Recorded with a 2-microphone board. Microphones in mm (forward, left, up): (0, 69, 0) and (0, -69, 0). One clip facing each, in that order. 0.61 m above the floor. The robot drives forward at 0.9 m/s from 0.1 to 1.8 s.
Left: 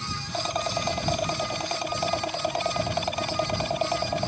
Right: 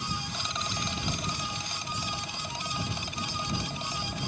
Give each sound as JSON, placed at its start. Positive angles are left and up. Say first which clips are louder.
{"t": 0.3, "sound": "a rattle", "louder": "left 9 dB", "side_deg": 50}